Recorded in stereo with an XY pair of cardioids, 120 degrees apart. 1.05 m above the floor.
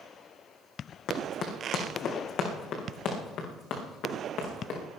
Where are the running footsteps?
65° left, 4 m; by 4.8 s 70° left, 6 m.